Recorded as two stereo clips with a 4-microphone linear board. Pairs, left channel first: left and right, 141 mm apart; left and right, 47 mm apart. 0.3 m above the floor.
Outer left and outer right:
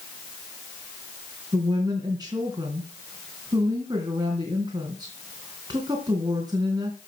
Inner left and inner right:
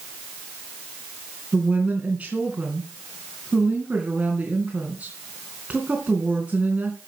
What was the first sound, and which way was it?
A woman speaking, 30° right (ahead or behind).